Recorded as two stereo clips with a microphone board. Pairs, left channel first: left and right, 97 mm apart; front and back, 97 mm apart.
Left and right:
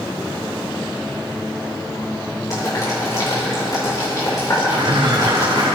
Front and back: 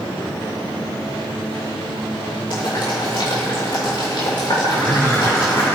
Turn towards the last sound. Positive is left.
turn(degrees=-65)